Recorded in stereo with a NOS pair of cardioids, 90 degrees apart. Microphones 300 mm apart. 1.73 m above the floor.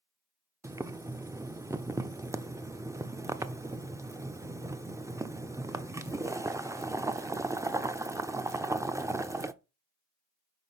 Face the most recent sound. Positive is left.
turn(degrees=-10)